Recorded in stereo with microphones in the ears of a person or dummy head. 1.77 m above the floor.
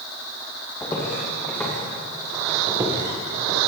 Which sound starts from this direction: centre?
Footsteps, at 0.8 s.